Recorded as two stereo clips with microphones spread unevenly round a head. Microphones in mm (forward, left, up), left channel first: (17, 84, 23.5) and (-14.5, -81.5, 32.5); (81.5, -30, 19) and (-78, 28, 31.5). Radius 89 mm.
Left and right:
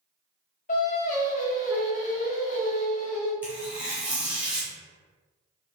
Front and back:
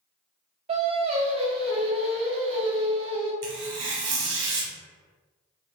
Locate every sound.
0.7 s singing: 120° left, 0.5 m
3.4 s tearing paper: 175° left, 0.7 m